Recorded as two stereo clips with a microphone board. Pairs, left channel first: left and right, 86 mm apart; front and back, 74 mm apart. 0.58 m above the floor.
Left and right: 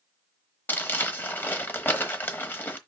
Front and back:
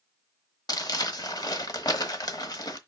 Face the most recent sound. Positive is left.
turn(degrees=25)